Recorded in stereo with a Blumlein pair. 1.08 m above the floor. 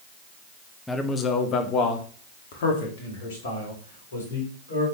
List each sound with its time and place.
0.9 s a man speaking: 10° left, 1.1 m; by 4.9 s 65° left, 4 m